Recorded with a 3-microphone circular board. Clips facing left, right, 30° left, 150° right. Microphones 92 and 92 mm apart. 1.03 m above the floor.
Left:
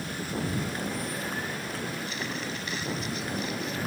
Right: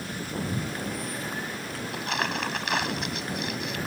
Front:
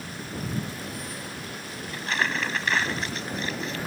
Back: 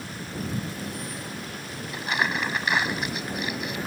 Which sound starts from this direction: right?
Crumpling, at 1.9 s.